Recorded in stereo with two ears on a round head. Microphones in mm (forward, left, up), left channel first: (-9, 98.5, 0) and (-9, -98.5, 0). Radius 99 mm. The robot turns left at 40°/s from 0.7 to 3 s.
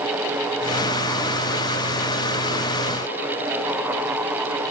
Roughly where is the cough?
I don't hear a cough.